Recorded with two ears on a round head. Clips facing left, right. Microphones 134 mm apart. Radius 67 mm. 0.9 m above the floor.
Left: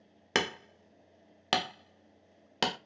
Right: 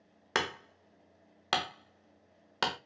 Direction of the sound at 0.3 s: 20° left (ahead or behind).